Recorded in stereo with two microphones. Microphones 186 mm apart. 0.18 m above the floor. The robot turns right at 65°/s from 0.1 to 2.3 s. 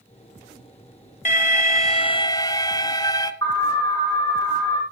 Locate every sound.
1.2 s an alarm: 80° left, 1.2 m; by 3.3 s 150° left, 1.2 m
3.4 s an alarm: 20° left (ahead or behind), 9.5 m